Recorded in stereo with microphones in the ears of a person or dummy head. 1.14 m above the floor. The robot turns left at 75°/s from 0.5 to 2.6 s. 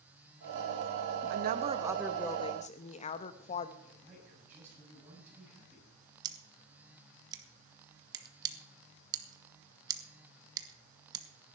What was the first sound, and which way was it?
A woman speaking, 120° right.